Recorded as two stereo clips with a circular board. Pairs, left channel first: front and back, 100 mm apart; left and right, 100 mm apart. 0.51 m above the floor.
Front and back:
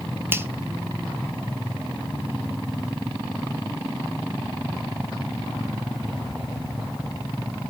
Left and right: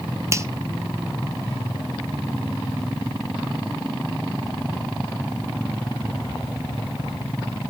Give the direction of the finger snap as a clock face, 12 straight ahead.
4 o'clock.